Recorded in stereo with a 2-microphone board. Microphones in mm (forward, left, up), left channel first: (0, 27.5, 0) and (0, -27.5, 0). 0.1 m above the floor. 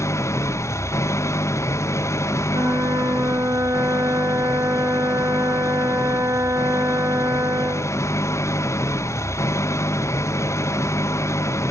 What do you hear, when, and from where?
0.0 s an engine running: 60° left (ahead or behind)
2.5 s a flute: 70° right (ahead or behind)